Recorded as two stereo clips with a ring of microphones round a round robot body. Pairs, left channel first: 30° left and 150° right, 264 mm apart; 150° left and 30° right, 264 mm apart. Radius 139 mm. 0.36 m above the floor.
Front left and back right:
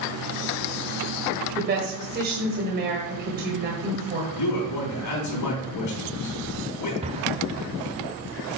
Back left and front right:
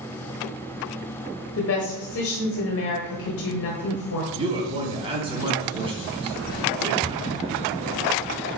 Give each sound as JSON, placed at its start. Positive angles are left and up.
{"t": 1.6, "sound": "a woman speaking", "azimuth_deg": 165, "distance_m": 1.7}
{"t": 4.4, "sound": "a man speaking", "azimuth_deg": 40, "distance_m": 3.5}
{"t": 7.0, "sound": "an explosion", "azimuth_deg": -95, "distance_m": 0.9}